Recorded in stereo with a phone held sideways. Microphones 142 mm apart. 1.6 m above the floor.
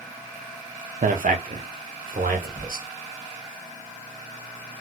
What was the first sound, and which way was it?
A man speaking, 65° right (ahead or behind).